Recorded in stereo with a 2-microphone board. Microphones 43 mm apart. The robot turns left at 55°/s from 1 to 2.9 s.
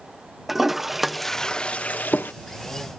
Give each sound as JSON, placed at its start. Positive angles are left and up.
{"t": 0.5, "sound": "a toilet flushing", "side_deg": -5}